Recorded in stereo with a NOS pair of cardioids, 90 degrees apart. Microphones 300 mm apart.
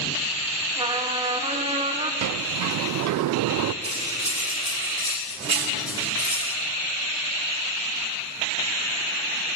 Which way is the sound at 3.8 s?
5° right.